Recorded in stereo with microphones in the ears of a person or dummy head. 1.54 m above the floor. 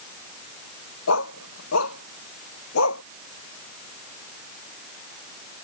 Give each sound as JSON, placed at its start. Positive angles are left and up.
{"t": 1.1, "sound": "a dog barking", "side_deg": 75}